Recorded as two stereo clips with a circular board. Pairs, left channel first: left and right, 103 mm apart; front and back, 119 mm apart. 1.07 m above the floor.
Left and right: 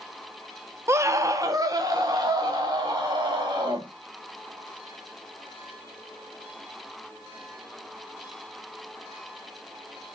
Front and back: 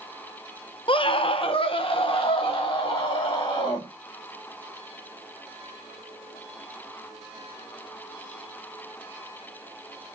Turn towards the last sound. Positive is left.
turn(degrees=-45)